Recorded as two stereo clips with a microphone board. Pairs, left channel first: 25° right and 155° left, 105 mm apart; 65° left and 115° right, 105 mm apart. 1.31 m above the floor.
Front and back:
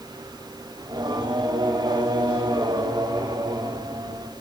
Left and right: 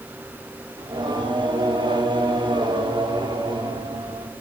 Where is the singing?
155° right, 4.5 m.